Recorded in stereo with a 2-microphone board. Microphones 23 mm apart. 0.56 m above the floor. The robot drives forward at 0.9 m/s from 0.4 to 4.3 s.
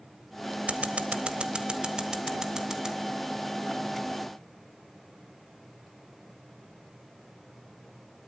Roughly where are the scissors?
Right.